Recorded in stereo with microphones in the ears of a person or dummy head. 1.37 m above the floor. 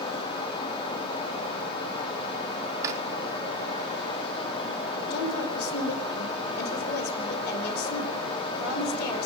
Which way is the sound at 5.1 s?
60° left (ahead or behind).